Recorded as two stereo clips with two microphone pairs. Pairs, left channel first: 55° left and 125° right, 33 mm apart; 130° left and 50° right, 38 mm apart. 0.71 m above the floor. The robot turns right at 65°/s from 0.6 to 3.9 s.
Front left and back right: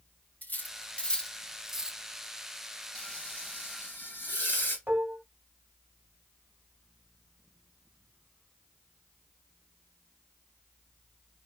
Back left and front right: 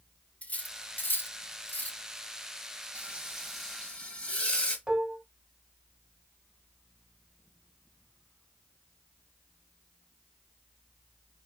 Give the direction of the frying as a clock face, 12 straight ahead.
12 o'clock.